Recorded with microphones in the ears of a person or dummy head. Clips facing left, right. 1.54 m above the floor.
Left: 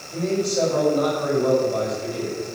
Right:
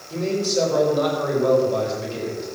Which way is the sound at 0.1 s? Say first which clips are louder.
Even; 45° right (ahead or behind).